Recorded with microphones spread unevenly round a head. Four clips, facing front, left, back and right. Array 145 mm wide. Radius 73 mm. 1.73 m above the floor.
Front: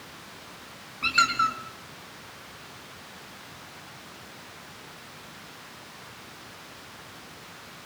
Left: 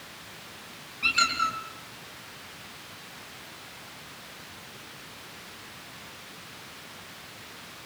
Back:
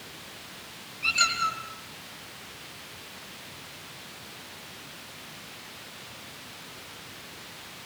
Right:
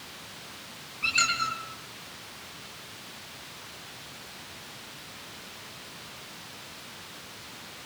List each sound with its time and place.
1.0 s a squeak: 5° left, 5.5 m